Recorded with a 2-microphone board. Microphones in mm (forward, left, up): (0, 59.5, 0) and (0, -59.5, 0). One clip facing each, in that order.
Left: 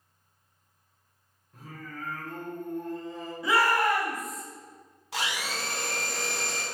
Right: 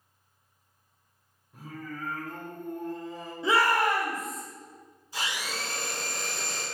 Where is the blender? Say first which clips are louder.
Left 2 dB; 80° left, 0.8 m.